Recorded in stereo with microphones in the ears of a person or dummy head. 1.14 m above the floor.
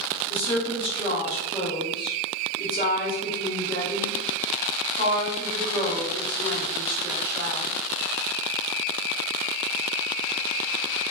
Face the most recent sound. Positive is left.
turn(degrees=25)  # may be behind; listen again after turning